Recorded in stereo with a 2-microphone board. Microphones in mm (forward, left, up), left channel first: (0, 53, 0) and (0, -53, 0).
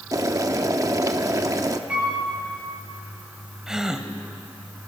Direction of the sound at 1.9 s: 10° right (ahead or behind).